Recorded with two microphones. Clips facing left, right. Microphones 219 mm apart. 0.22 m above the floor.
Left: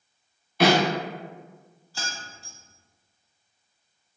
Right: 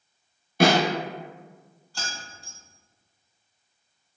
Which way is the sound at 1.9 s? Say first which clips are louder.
Even; 5° left (ahead or behind).